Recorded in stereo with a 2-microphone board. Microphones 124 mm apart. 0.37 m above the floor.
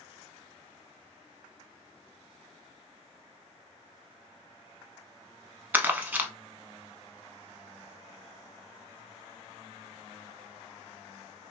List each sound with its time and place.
5.7 s crumpling: 15° right (ahead or behind), 0.5 m